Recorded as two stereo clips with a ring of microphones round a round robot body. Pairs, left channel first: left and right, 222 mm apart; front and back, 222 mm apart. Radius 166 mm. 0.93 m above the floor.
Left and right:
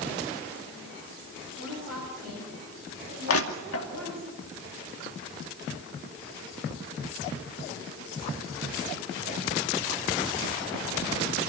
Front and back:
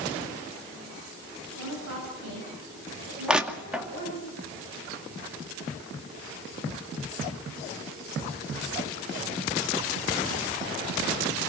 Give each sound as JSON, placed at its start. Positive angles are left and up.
{"t": 1.6, "sound": "a woman speaking", "azimuth_deg": -150, "distance_m": 7.0}
{"t": 3.3, "sound": "crushing", "azimuth_deg": 95, "distance_m": 2.5}